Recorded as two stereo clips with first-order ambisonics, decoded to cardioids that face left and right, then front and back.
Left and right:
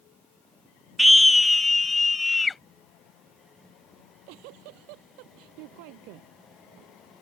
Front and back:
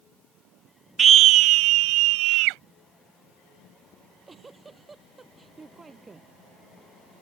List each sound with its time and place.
1.0 s a scream: 165° right; by 2.6 s 165° left
4.0 s a giggle: 100° right